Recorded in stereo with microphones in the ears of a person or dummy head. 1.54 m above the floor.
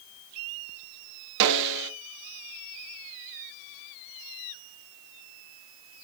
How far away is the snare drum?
About 0.7 m.